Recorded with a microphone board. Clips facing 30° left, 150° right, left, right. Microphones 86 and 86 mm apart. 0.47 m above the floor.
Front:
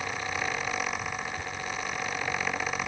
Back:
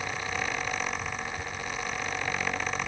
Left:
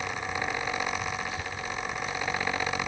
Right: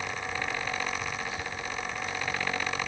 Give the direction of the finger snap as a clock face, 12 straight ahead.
No finger snap in this recording.